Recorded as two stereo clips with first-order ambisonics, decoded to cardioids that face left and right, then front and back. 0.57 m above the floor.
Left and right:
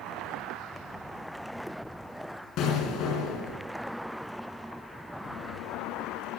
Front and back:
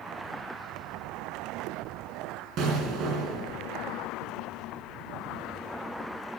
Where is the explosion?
135° left, 3 m.